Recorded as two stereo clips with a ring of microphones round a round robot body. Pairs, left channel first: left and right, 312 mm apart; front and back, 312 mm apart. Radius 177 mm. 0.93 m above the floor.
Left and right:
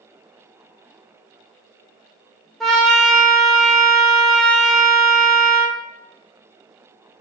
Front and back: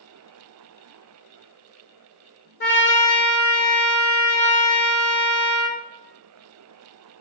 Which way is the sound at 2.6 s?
Straight ahead.